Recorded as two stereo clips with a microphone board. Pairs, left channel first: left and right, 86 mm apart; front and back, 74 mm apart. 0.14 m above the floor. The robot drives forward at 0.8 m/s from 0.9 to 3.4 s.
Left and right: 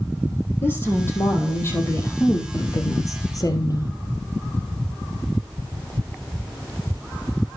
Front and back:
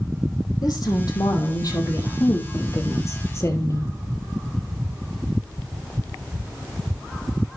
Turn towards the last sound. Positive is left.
turn(degrees=50)